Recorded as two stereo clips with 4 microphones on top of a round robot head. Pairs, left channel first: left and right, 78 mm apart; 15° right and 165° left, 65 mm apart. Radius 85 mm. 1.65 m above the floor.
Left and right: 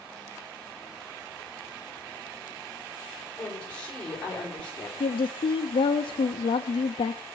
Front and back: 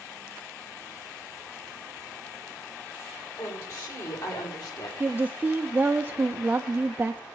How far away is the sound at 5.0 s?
About 0.6 m.